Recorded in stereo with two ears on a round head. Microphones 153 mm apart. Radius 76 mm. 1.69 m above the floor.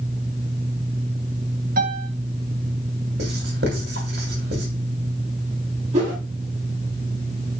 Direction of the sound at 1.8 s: 55° right (ahead or behind).